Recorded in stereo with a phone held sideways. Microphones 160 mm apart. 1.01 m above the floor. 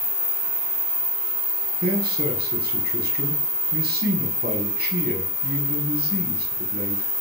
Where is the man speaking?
80° right, 6.5 m.